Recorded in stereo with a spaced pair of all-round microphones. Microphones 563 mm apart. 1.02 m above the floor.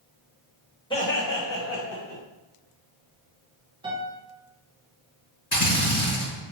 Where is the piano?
10° right (ahead or behind), 0.7 m.